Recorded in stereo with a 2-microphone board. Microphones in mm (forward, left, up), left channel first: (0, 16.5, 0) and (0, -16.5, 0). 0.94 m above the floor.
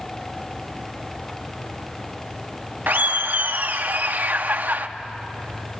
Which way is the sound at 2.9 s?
65° right (ahead or behind).